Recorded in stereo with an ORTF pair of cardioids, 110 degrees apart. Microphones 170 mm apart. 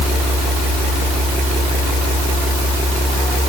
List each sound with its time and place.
Only background noise.